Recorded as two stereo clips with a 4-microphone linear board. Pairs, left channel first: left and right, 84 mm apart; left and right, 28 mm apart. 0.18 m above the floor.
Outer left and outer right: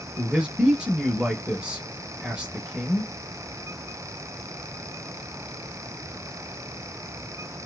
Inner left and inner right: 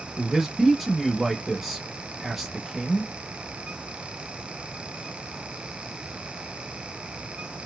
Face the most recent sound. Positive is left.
turn(degrees=-10)  # may be behind; listen again after turning